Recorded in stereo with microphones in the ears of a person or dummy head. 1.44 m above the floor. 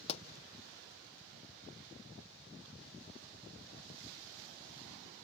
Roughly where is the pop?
Left.